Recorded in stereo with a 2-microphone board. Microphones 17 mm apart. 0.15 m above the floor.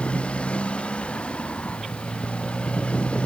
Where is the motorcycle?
85° left; by 3.3 s 90° left.